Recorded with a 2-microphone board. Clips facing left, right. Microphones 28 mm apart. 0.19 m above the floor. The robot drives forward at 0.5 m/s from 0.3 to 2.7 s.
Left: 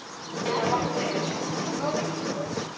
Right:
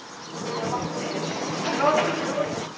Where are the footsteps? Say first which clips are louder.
Left 3 dB; 40° left (ahead or behind), 1.5 m; by 2.7 s 85° right, 1.6 m.